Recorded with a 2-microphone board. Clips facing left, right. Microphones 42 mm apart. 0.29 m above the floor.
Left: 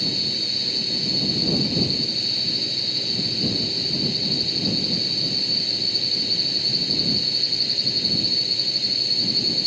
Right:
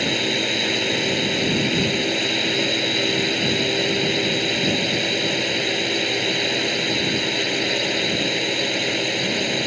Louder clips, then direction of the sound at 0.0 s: Right 7 dB; 65° right (ahead or behind).